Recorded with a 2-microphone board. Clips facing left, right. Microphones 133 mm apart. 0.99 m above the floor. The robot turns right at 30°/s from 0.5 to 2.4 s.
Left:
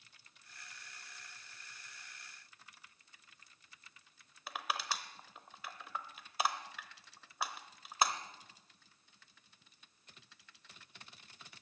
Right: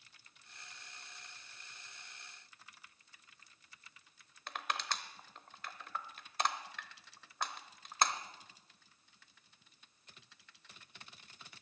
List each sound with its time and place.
4.5 s crushing: 5° left (ahead or behind), 0.8 m